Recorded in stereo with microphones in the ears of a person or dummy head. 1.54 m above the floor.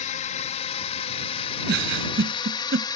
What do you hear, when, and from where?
0.0 s a drone: 45° left (ahead or behind); by 3.0 s 25° left (ahead or behind)
1.7 s a giggle: 70° right (ahead or behind)